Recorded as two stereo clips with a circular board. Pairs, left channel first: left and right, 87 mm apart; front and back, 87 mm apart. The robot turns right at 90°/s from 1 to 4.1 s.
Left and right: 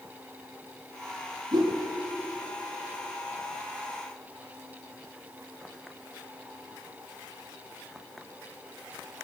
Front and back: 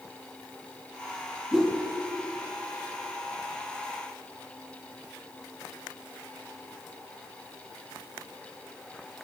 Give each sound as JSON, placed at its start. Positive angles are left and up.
{"t": 1.5, "sound": "a whoosh", "azimuth_deg": -100, "distance_m": 1.4}